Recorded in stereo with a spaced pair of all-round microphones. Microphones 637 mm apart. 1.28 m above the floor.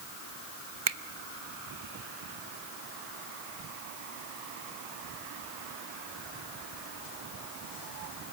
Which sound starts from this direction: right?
A finger snap, at 0.9 s.